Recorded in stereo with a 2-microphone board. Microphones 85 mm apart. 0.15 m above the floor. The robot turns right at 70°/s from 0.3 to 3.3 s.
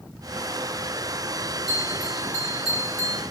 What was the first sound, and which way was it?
A bell, 110° left.